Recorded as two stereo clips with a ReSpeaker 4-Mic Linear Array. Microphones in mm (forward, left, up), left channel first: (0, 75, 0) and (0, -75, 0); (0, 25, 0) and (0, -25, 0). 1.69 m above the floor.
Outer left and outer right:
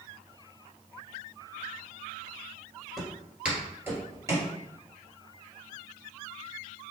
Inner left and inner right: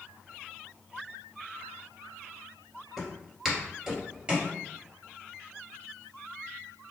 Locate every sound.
3.0 s footsteps: centre (ahead or behind), 1.8 m; by 4.5 s 25° right (ahead or behind), 2.0 m